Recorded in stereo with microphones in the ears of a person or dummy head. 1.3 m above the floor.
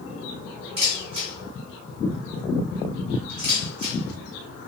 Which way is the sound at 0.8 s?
30° right (ahead or behind).